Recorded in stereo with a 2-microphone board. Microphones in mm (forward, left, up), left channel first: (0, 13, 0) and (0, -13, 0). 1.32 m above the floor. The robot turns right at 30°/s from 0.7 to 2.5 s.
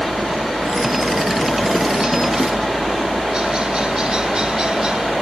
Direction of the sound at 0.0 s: 90° right.